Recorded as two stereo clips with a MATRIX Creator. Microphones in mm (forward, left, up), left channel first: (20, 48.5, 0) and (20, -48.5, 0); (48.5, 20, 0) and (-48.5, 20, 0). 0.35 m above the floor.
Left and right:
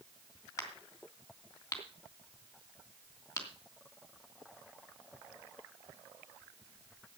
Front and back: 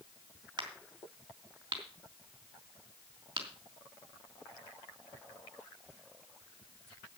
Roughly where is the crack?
Behind left.